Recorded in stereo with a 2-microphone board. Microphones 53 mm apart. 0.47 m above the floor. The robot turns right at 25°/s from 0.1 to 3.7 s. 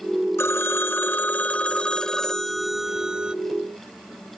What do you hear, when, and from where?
0.4 s a phone ringing: 125° left, 0.9 m; by 3.3 s 160° right, 0.9 m